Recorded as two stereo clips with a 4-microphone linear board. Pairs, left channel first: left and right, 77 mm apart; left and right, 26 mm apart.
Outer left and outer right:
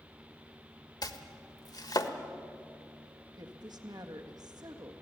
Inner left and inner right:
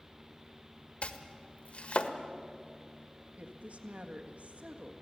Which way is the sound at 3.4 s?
60° right (ahead or behind).